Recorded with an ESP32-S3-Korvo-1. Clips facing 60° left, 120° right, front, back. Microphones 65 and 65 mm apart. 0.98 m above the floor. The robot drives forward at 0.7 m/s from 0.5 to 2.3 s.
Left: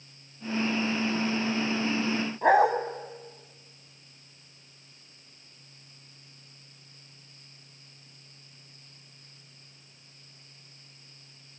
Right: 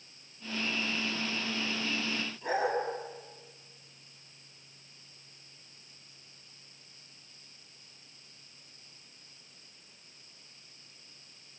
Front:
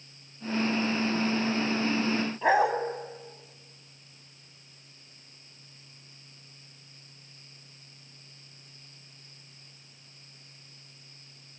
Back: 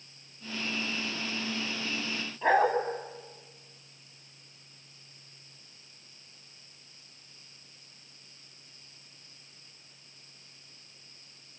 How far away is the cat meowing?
No cat meowing in this recording.